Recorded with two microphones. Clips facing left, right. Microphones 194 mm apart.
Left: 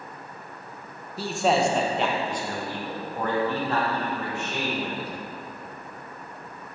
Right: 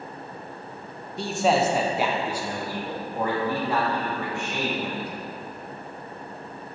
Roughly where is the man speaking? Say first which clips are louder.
Right 1 dB; centre.